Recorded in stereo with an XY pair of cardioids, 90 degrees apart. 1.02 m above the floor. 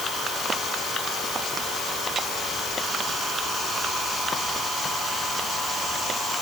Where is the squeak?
No squeak in this recording.